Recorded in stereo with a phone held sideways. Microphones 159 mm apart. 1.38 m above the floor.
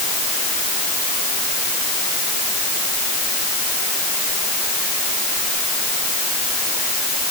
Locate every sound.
Only background noise.